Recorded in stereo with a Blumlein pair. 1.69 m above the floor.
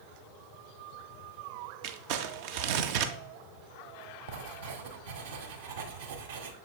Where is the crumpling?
45° right, 0.6 m.